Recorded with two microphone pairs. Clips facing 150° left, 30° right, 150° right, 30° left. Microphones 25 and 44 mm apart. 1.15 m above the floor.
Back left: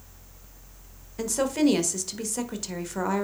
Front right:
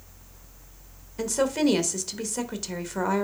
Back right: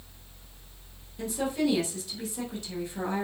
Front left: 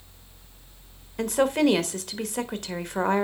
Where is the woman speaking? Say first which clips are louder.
Even, front left 7 dB; 55° left, 1.3 m.